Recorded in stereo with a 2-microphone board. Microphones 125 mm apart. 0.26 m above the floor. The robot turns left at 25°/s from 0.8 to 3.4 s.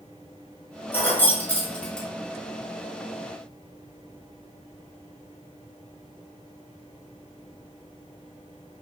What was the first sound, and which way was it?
Keys jangling, 15° left (ahead or behind).